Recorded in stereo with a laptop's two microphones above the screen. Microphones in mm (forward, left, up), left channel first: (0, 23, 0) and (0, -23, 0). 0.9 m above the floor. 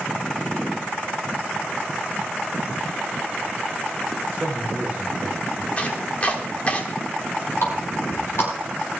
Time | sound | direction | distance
4.3 | a man speaking | 25° right (ahead or behind) | 3 m
5.8 | chopping | 30° left (ahead or behind) | 1.5 m
7.6 | a running tap | 70° left (ahead or behind) | 5 m